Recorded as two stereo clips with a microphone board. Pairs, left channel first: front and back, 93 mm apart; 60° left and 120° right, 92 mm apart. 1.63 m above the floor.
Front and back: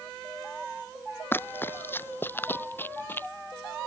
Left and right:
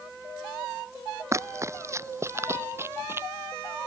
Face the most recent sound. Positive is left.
turn(degrees=-60)